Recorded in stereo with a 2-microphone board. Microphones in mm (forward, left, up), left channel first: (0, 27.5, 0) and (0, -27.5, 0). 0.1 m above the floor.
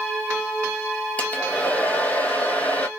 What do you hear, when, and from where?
1.2 s a hair dryer: 25° left (ahead or behind), 0.6 m